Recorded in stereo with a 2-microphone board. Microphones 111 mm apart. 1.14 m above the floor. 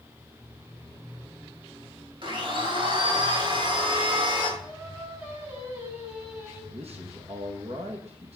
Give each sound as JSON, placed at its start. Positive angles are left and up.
{"t": 2.2, "sound": "a blender", "side_deg": -45, "distance_m": 3.0}
{"t": 4.6, "sound": "singing", "side_deg": -15, "distance_m": 6.0}
{"t": 6.7, "sound": "a man speaking", "side_deg": -65, "distance_m": 1.7}